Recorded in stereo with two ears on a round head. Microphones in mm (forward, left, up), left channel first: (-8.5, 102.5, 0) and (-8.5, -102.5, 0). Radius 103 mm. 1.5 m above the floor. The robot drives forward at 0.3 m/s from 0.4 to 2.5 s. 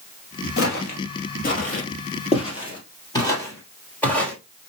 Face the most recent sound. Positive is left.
turn(degrees=5)  # may be behind; listen again after turning